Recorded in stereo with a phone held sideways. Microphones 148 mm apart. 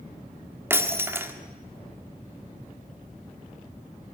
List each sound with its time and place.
0.7 s breaking glass: 15° right (ahead or behind), 1.4 m